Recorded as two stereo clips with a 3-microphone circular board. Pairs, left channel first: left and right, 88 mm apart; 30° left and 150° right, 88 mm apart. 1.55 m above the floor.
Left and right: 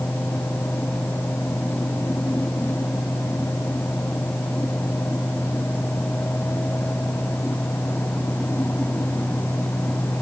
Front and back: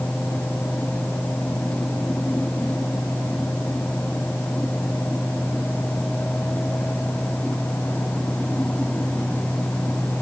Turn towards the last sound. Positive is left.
No sound to turn to.